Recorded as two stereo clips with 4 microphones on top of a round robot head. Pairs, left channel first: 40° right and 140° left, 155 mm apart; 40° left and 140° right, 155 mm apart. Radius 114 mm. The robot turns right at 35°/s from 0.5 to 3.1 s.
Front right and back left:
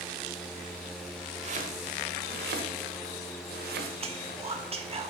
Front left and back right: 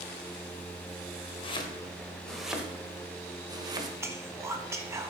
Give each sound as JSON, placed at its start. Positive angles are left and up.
{"t": 1.4, "sound": "chopping", "azimuth_deg": 95, "distance_m": 1.2}
{"t": 4.0, "sound": "whispering", "azimuth_deg": 155, "distance_m": 1.0}